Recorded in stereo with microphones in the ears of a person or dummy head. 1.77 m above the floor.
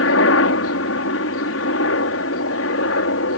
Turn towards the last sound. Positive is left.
turn(degrees=70)  # may be behind; listen again after turning